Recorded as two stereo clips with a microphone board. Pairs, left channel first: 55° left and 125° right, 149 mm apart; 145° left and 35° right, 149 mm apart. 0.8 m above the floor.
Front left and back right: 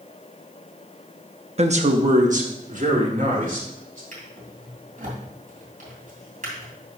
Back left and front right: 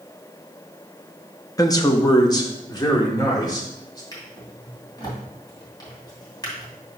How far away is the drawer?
About 2.5 m.